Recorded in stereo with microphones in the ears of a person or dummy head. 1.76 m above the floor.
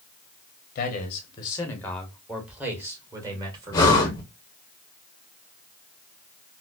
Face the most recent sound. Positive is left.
turn(degrees=20)  # may be behind; listen again after turning